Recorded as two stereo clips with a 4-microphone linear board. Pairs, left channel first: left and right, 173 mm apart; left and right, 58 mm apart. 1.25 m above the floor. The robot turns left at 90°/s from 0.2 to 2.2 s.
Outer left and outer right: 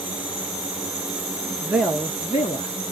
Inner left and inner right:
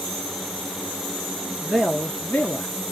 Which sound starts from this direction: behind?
A man speaking, at 1.6 s.